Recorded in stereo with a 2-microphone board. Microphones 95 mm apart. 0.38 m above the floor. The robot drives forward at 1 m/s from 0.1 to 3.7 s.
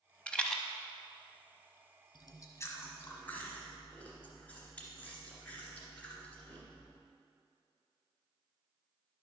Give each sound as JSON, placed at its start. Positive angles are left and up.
{"t": 0.3, "sound": "a rattle", "side_deg": 10, "distance_m": 0.5}
{"t": 2.1, "sound": "chewing", "side_deg": 50, "distance_m": 0.7}